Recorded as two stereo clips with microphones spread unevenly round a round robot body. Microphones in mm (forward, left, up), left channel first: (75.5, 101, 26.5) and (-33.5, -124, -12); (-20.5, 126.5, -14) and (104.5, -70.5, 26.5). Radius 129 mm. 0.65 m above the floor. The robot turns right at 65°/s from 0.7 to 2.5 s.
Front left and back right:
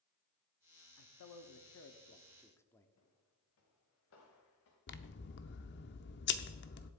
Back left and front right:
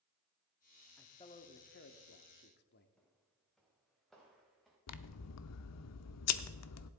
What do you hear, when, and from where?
1.0 s a man speaking: 50° left, 1.1 m; by 2.9 s 150° left, 1.1 m
3.0 s footsteps: 35° left, 2.5 m; by 4.8 s 30° left, 4 m
4.9 s scissors: 115° left, 0.7 m